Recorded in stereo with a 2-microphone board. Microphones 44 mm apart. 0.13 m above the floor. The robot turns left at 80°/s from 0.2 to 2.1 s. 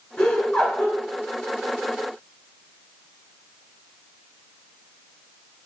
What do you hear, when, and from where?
0.2 s laughter: 85° left, 1.2 m; by 1.0 s 25° left, 1.2 m